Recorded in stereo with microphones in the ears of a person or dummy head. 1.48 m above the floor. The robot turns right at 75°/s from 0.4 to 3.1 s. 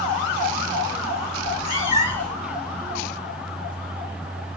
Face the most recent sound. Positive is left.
turn(degrees=-125)